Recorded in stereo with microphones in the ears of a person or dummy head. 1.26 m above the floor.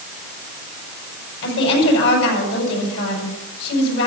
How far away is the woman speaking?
About 7.5 m.